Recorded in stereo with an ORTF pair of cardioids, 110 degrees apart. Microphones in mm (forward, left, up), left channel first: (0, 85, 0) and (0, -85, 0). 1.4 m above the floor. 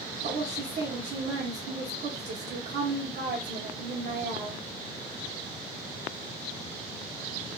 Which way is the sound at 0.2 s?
55° right.